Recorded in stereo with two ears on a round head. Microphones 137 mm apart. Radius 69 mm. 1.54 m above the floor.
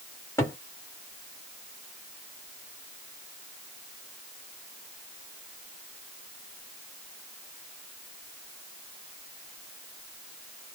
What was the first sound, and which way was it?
A cupboard door, 20° left (ahead or behind).